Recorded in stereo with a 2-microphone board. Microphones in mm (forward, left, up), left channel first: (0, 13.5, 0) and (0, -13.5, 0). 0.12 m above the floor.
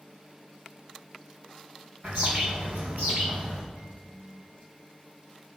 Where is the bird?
60° right (ahead or behind), 4 m.